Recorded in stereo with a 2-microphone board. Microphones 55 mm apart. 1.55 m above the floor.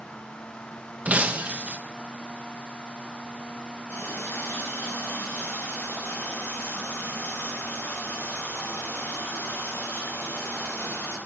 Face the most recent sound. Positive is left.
turn(degrees=45)  # may be behind; listen again after turning